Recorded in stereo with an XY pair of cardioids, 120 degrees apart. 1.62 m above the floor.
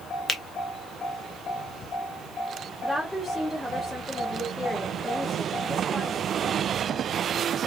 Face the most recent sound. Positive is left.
turn(degrees=10)